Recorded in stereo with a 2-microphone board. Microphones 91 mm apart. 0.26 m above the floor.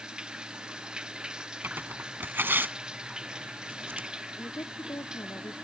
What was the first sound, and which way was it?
Running water, 10° right (ahead or behind).